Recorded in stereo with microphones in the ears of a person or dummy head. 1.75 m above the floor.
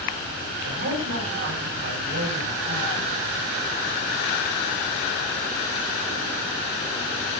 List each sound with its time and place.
0.6 s a man speaking: 55° right (ahead or behind), 8.5 m